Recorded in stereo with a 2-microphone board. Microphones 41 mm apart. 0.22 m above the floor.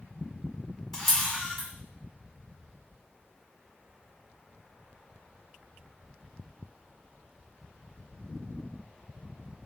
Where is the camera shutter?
5° left (ahead or behind), 1.4 m.